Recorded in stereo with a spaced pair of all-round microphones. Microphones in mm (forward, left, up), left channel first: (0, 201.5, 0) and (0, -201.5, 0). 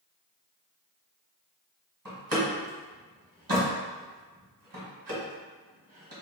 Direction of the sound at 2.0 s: 60° right (ahead or behind).